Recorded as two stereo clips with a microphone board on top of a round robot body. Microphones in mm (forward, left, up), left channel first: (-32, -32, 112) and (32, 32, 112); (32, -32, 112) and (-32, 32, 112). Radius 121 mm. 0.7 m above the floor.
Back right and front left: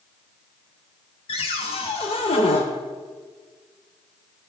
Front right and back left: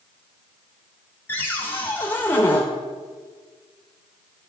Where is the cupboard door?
115° right, 0.5 m.